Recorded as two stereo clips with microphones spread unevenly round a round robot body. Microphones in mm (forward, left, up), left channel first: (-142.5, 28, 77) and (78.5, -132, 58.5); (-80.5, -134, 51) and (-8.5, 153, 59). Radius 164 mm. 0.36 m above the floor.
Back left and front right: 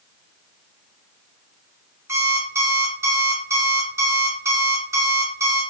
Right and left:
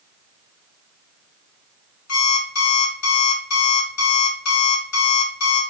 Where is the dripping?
I don't hear dripping.